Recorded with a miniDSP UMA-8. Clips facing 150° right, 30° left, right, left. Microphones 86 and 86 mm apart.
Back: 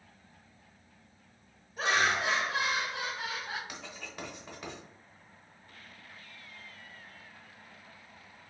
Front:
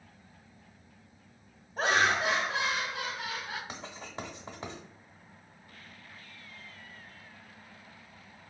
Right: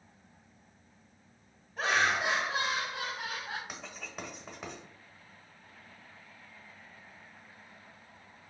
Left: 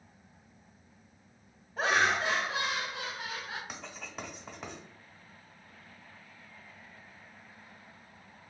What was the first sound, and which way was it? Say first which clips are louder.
Laughter: front 2 dB, left 1 dB; 40° left.